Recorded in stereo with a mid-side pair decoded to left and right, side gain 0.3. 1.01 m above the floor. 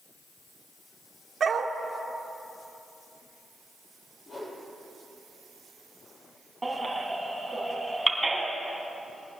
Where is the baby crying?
20° right, 3 m.